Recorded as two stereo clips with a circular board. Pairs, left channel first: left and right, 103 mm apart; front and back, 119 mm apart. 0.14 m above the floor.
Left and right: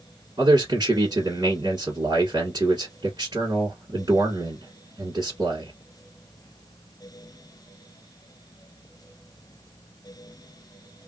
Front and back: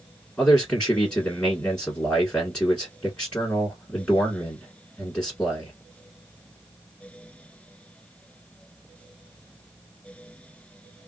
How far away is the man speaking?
About 1.3 m.